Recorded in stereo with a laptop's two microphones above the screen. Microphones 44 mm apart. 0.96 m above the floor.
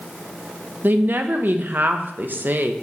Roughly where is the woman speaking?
Right.